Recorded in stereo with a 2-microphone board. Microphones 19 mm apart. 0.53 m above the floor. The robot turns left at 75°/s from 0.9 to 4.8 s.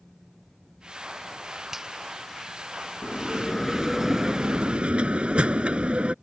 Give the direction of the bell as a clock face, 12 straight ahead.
10 o'clock.